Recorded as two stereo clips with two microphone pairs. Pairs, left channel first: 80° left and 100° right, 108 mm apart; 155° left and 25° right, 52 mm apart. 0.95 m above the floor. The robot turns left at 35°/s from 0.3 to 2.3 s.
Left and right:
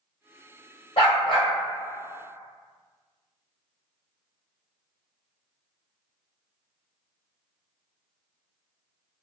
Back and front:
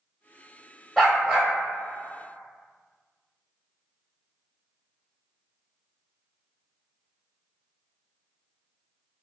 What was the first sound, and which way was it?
A dog barking, 75° left.